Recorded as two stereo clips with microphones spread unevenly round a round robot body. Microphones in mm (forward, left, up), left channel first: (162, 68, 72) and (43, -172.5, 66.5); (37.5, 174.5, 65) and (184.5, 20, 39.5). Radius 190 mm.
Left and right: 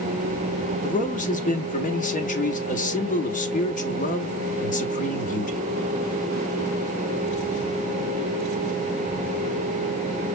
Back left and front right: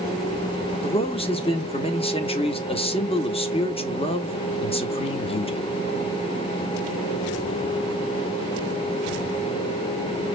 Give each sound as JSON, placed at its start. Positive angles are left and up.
{"t": 0.8, "sound": "a man speaking", "azimuth_deg": 85, "distance_m": 1.0}